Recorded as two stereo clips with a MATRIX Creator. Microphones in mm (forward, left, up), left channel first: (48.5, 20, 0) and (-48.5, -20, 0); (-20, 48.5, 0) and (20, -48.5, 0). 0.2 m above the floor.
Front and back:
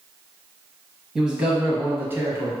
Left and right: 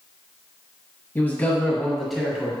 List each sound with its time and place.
1.1 s a man speaking: 125° left, 1.2 m; by 2.5 s 140° right, 1.3 m